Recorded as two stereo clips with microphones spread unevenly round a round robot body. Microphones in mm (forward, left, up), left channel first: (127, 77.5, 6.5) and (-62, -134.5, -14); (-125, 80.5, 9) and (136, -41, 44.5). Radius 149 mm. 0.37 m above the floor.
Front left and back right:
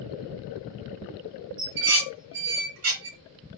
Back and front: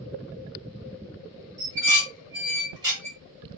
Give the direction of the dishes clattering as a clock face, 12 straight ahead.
3 o'clock.